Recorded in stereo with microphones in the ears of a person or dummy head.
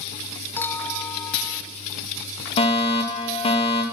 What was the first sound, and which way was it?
A clink, 15° left (ahead or behind).